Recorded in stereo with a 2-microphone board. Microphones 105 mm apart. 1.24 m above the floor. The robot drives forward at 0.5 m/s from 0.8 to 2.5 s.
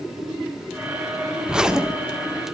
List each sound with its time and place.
1.5 s a zipper: 5° right (ahead or behind), 0.8 m